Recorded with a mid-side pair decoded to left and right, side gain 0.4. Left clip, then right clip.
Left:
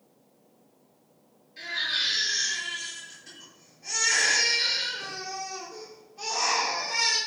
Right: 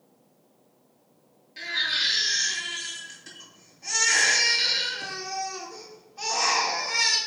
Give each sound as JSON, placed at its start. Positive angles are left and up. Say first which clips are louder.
{"t": 1.6, "sound": "a baby crying", "louder": "right 2 dB", "azimuth_deg": -65, "distance_m": 3.0}